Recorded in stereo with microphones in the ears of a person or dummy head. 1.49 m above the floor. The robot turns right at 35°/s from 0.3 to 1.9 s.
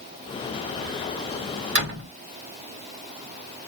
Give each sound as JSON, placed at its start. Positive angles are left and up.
{"t": 1.8, "sound": "a door slam", "side_deg": -65, "distance_m": 2.0}